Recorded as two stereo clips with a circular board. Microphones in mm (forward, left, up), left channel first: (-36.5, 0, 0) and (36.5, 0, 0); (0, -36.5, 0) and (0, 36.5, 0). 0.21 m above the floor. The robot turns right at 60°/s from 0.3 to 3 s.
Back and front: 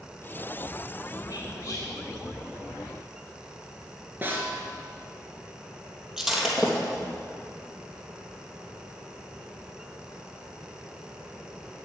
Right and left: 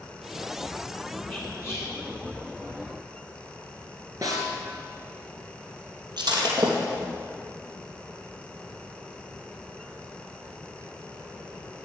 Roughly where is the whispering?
Behind right.